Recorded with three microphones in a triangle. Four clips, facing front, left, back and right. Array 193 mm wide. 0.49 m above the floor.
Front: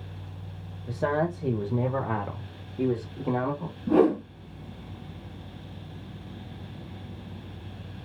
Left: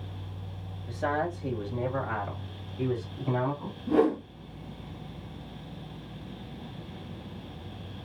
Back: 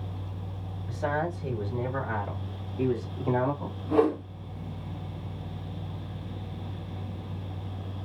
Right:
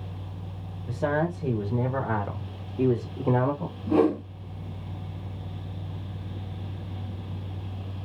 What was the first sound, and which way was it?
A man speaking, 20° right.